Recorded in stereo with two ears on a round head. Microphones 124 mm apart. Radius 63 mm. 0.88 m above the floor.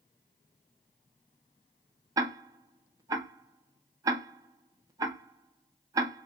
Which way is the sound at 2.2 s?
25° right (ahead or behind).